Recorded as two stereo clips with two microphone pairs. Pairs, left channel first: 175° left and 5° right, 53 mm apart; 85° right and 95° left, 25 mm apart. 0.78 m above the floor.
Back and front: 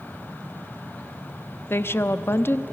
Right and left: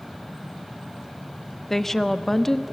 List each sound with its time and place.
1.7 s a woman speaking: 155° right, 0.8 m